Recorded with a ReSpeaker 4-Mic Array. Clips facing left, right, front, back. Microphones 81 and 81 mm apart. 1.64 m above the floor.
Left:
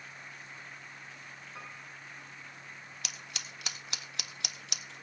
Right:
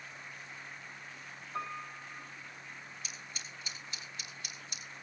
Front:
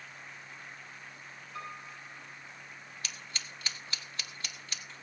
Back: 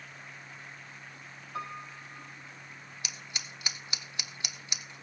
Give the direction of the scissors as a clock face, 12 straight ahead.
9 o'clock.